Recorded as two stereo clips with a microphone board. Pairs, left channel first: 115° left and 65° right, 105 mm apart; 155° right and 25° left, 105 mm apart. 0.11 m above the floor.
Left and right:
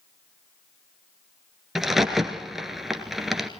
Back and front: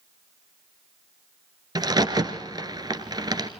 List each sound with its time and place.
1.8 s a crack: 20° left, 1.2 m